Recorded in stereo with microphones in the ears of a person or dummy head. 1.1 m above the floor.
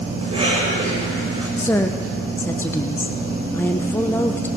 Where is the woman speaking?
10° left (ahead or behind), 0.7 m.